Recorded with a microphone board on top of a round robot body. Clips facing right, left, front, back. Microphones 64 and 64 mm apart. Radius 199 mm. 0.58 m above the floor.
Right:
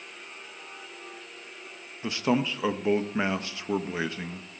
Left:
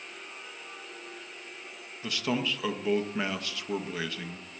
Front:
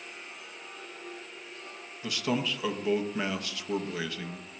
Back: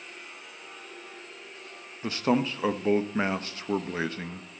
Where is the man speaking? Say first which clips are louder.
Right 4 dB, back 5 dB; 145° right, 0.8 m.